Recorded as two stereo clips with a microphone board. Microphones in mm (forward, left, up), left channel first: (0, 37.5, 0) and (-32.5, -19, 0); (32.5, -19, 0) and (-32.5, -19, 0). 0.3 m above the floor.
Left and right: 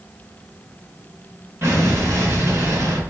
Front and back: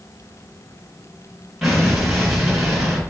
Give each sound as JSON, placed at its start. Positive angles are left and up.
{"t": 1.6, "sound": "an explosion", "azimuth_deg": -100, "distance_m": 1.6}